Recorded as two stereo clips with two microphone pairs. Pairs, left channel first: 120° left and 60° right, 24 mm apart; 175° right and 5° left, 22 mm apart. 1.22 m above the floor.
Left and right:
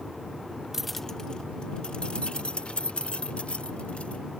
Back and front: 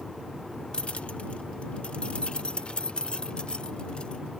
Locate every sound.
0.7 s keys jangling: 130° right; by 4.2 s 145° left